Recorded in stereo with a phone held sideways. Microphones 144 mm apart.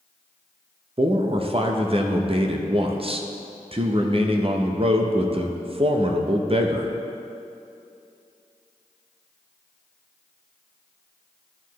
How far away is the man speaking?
About 0.6 m.